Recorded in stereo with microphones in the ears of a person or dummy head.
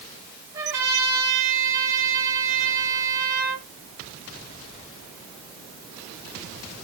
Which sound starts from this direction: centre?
A trumpet, at 0.5 s.